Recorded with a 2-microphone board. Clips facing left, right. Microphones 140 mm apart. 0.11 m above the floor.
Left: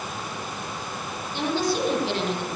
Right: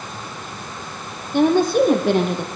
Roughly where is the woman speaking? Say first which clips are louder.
Right 10 dB; right.